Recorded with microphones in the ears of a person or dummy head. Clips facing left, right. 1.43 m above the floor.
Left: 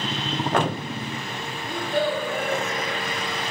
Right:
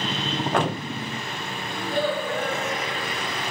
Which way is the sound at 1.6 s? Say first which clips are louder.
Left 1 dB; 45° left (ahead or behind).